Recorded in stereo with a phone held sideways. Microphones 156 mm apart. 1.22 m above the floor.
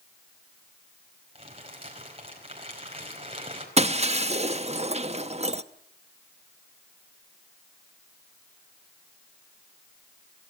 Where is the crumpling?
35° right (ahead or behind), 4.5 m.